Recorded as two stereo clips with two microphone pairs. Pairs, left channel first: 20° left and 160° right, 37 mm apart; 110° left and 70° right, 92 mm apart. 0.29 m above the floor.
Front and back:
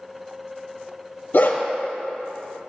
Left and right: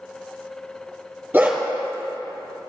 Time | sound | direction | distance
1.3 | a dog barking | straight ahead | 2 m